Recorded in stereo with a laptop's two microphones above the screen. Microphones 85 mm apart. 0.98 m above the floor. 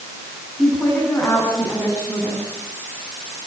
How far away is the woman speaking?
About 7.5 m.